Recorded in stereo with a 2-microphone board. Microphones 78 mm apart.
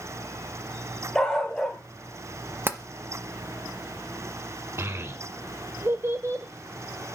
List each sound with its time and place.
1.1 s a dog barking: 10° left (ahead or behind), 1.8 m
2.7 s tapping: 30° right (ahead or behind), 0.8 m
4.8 s a child speaking: 35° right (ahead or behind), 0.6 m